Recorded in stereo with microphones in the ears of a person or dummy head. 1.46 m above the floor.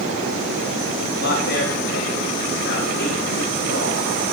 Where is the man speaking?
65° left (ahead or behind), 5.5 m.